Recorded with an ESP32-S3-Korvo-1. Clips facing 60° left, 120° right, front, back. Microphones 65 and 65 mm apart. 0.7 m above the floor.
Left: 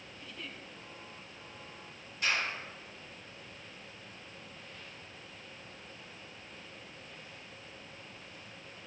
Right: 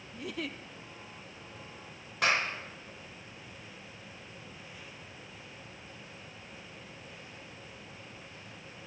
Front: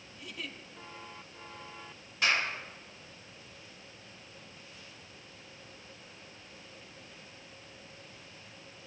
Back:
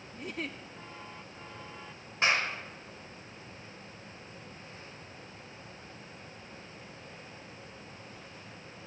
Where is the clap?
120° right, 2 m.